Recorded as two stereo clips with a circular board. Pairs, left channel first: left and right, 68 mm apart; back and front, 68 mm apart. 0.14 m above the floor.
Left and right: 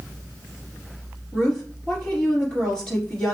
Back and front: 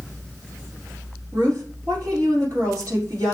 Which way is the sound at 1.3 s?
15° left.